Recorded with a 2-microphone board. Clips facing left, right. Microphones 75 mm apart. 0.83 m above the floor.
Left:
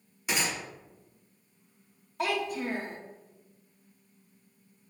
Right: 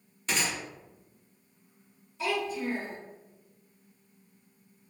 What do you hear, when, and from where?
0.3 s a gunshot: 10° left (ahead or behind), 0.9 m
2.2 s a child speaking: 55° left (ahead or behind), 0.7 m